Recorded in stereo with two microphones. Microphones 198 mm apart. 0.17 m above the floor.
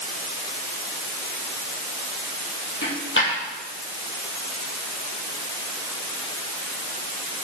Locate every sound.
2.8 s a dropped coin: 80° left, 5 m